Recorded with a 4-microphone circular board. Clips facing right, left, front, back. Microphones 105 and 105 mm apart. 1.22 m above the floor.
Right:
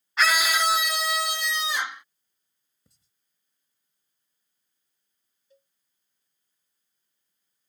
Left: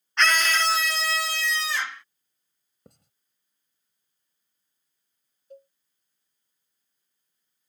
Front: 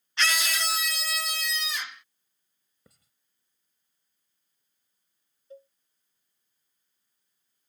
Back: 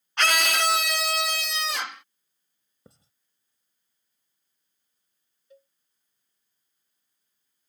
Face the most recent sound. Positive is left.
turn(degrees=55)